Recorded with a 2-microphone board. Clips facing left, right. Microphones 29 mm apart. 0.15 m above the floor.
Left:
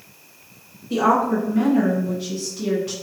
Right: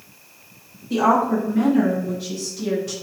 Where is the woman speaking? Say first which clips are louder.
Even; 5° left (ahead or behind), 1.8 m; by 2.9 s 20° left (ahead or behind), 1.4 m.